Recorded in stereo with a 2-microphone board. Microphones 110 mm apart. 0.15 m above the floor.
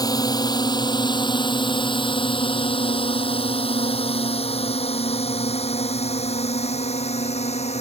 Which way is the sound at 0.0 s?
35° left (ahead or behind).